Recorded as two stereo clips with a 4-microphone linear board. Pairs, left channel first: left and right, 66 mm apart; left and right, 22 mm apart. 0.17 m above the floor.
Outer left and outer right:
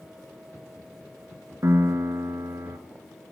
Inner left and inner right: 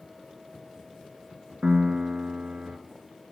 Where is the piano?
45° right (ahead or behind), 0.9 m.